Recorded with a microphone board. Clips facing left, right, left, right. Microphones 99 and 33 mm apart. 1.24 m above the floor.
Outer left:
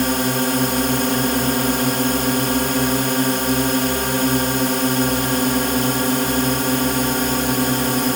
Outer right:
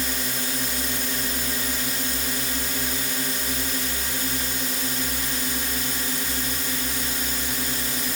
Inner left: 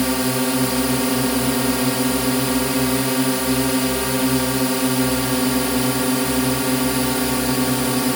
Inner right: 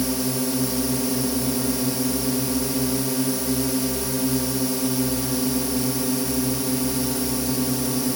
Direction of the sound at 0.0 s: 60° left (ahead or behind).